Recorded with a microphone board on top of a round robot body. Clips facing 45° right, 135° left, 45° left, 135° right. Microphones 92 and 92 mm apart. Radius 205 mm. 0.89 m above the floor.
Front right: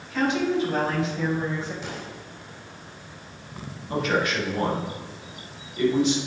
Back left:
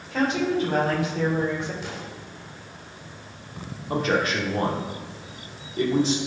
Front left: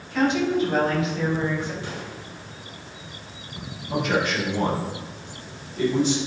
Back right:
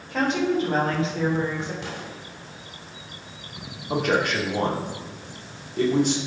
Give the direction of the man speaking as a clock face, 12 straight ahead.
6 o'clock.